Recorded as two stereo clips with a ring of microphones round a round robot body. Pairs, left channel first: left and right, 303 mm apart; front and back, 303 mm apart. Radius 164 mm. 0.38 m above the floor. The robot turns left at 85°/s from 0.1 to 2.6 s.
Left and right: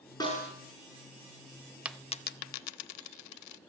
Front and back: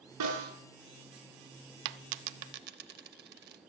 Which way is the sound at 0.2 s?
170° left.